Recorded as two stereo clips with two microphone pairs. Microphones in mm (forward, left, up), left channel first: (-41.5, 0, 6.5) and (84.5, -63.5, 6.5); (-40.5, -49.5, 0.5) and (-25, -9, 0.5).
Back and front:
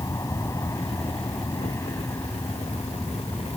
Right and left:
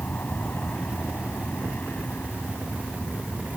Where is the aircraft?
145° right; by 3.6 s 135° right.